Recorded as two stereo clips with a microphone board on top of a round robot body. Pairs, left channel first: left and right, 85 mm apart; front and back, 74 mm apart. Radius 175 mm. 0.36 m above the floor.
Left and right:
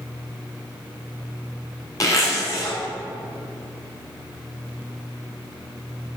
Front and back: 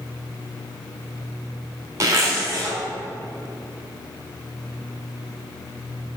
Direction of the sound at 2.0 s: 135° left.